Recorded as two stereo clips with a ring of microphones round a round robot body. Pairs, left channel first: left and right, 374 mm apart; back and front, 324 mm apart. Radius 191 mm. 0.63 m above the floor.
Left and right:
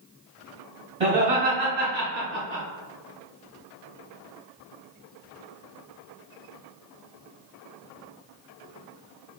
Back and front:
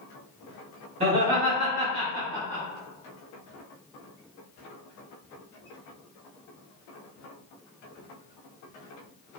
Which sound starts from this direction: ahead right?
Laughter, at 1.0 s.